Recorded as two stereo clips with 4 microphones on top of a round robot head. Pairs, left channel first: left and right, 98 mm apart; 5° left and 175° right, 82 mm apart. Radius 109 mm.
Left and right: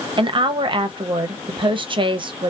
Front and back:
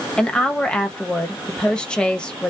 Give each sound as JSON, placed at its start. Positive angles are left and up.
{"t": 0.2, "sound": "a woman speaking", "azimuth_deg": -70, "distance_m": 0.6}